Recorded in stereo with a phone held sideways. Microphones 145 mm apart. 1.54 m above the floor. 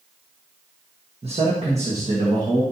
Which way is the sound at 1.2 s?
45° right (ahead or behind).